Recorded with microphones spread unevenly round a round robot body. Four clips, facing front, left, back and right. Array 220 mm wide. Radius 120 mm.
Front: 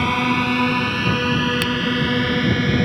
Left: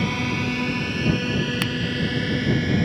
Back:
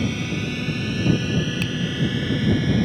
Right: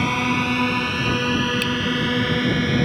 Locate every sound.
0.0 s a drone: 20° right; by 2.9 s 30° right
1.6 s a finger snap: 45° left